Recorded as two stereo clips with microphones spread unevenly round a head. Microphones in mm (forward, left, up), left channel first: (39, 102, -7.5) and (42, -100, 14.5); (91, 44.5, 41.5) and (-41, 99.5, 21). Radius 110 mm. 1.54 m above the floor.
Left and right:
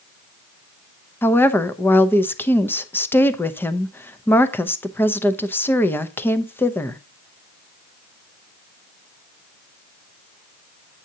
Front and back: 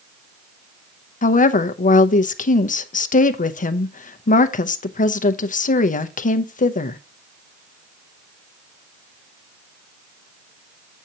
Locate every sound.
1.2 s a woman speaking: 10° left, 0.7 m